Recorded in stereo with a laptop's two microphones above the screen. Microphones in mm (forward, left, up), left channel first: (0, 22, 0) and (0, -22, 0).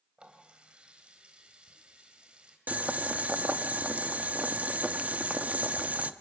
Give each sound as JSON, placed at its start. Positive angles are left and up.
{"t": 0.2, "sound": "a running tap", "side_deg": -25, "distance_m": 4.0}
{"t": 2.7, "sound": "boiling", "side_deg": -35, "distance_m": 1.0}